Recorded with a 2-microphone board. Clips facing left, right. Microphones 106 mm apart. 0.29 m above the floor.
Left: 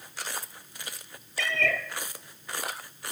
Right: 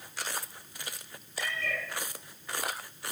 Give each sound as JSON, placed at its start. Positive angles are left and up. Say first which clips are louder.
{"t": 1.4, "sound": "a cat meowing", "louder": "left 6 dB", "side_deg": 85, "distance_m": 0.9}